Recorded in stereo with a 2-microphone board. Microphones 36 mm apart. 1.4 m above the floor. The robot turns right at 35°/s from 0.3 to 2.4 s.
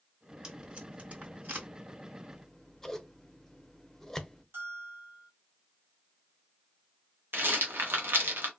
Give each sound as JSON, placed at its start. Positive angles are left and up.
{"t": 0.4, "sound": "tape being pulled", "side_deg": -20, "distance_m": 2.5}
{"t": 2.3, "sound": "scissors", "side_deg": 10, "distance_m": 0.5}
{"t": 4.5, "sound": "a bell", "side_deg": -75, "distance_m": 1.5}
{"t": 7.3, "sound": "a rattle", "side_deg": -80, "distance_m": 0.9}